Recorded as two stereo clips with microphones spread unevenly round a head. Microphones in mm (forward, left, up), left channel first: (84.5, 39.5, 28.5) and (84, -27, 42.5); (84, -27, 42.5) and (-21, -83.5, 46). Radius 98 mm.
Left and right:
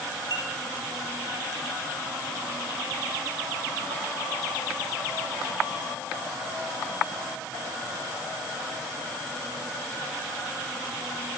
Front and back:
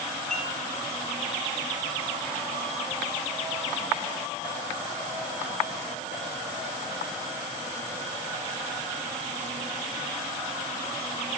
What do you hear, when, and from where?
0.3 s dishes clattering: 60° right, 8 m